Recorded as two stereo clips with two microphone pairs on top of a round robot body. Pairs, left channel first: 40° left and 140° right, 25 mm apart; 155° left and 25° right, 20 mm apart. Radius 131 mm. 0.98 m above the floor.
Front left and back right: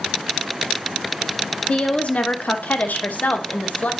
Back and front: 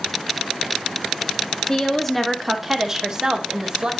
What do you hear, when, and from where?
1.7 s a woman speaking: 90° left, 0.9 m; by 3.9 s 20° left, 1.3 m